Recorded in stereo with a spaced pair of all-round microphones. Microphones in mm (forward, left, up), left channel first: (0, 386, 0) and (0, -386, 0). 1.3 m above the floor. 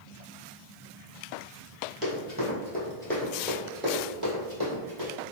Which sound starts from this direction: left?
Running footsteps, at 2.0 s.